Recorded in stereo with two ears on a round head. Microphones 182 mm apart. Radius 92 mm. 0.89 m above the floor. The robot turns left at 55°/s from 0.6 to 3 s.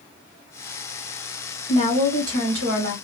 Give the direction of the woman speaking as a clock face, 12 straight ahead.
1 o'clock.